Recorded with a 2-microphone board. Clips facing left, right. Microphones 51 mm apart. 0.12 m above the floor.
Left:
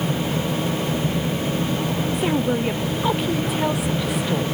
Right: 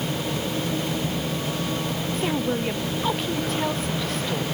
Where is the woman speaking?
10° left (ahead or behind).